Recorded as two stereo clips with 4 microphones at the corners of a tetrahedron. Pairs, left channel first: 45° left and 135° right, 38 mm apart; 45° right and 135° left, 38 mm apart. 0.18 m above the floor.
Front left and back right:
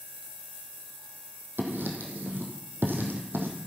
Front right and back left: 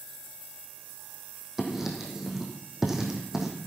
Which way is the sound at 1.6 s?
145° right.